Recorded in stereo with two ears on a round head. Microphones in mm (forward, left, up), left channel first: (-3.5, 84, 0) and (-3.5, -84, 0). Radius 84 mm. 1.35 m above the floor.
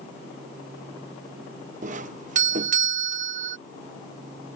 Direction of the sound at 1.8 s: 40° right (ahead or behind).